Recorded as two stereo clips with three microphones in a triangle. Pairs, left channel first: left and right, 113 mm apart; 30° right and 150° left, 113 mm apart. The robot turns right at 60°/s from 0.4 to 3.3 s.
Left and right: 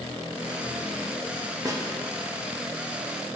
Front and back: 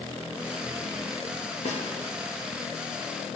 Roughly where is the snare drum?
Ahead right.